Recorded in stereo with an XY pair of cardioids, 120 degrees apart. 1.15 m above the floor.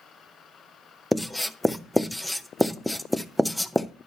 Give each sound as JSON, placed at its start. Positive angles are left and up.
{"t": 1.1, "sound": "writing", "azimuth_deg": 5, "distance_m": 0.5}